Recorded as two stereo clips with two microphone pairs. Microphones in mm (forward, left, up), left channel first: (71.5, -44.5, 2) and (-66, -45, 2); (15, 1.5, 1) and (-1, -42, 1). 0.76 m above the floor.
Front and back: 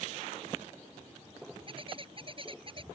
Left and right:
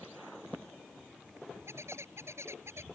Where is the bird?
130° right.